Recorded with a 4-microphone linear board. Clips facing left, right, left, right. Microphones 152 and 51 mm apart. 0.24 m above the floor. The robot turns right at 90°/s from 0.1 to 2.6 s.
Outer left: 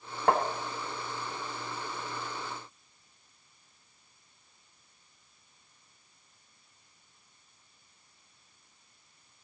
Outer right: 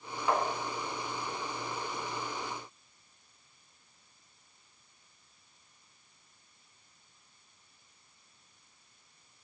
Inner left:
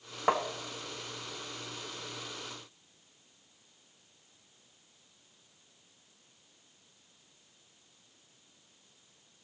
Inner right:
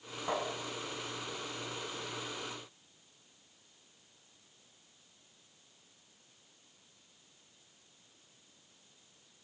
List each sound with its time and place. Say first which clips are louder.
0.3 s tapping: outer left 4 dB, inner left 7 dB; 65° left (ahead or behind), 1.0 m; by 0.4 s 55° left (ahead or behind), 1.0 m